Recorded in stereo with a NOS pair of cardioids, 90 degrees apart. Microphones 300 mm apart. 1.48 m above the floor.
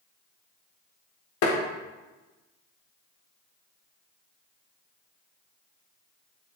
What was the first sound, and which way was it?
Tapping, 65° left.